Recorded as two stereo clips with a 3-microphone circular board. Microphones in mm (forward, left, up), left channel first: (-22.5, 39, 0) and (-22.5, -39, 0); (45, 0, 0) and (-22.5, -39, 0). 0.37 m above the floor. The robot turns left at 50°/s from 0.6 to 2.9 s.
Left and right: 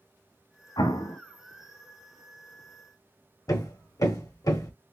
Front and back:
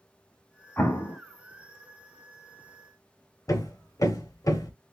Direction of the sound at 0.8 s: 95° left.